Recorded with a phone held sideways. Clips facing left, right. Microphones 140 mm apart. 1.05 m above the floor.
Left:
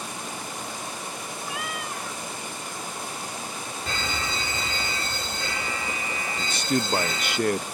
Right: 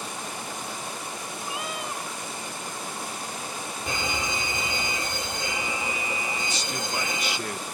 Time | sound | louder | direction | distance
1.4 | a cat meowing | right 1 dB | 25° right (ahead or behind) | ?
3.9 | a fire alarm | right 1 dB | 15° right (ahead or behind) | ?
6.4 | a man speaking | left 6 dB | 55° left (ahead or behind) | ?